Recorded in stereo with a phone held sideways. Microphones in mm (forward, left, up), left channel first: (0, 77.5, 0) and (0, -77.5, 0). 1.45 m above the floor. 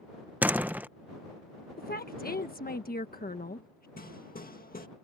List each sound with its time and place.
0.4 s a door slam: 10° right (ahead or behind)
1.8 s a woman speaking: 85° left
4.0 s hammering: 80° left